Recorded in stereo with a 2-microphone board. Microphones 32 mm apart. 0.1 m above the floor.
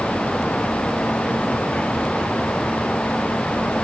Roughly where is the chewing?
I don't hear chewing.